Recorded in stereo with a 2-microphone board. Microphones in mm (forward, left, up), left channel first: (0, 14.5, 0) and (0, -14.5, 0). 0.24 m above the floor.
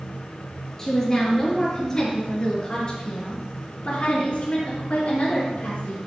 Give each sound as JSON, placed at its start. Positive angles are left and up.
{"t": 0.8, "sound": "a woman speaking", "side_deg": 15, "distance_m": 4.0}